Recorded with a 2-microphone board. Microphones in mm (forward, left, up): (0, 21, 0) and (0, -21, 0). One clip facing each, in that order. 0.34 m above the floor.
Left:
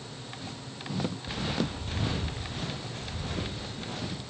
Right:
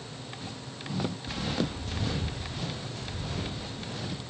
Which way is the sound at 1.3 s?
25° left (ahead or behind).